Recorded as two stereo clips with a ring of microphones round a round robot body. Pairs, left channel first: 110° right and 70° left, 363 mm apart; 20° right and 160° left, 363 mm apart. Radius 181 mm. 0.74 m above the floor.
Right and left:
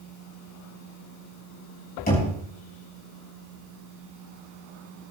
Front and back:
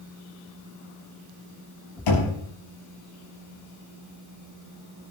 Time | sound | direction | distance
2.1 | knocking | 45° right | 5 m